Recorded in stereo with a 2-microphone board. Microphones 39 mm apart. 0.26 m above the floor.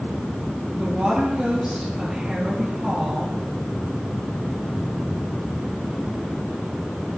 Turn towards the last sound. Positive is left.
turn(degrees=-20)  # may be behind; listen again after turning